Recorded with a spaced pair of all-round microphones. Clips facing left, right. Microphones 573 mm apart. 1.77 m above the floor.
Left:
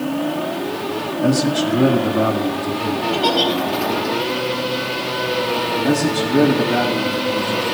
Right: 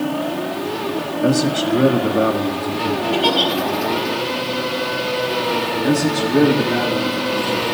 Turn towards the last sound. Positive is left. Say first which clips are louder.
# even
turn(degrees=5)  # may be behind; listen again after turning